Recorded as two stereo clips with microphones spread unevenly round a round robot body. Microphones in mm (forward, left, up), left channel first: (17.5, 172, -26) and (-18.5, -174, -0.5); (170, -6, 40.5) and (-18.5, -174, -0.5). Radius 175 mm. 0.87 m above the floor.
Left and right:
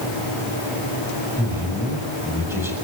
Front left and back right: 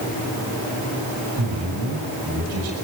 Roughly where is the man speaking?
Behind.